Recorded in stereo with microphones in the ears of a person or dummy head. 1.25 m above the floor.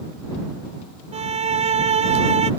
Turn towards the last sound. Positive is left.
turn(degrees=-40)  # may be behind; listen again after turning